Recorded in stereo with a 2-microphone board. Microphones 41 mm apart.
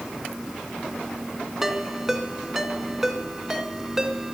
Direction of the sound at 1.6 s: 10° right (ahead or behind).